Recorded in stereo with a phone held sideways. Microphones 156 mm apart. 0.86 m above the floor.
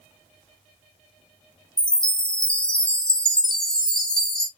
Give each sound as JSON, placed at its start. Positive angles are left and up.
{"t": 1.8, "sound": "a chime", "side_deg": 5, "distance_m": 0.6}